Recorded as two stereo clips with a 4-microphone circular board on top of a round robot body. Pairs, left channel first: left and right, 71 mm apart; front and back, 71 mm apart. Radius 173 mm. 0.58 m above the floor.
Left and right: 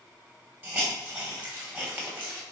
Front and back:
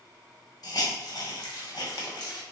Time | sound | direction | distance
0.6 | a hiss | 25° right | 1.3 m